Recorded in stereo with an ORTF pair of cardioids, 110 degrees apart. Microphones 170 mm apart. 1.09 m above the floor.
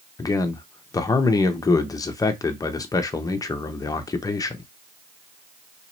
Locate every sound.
0.2 s a man speaking: 20° left, 0.8 m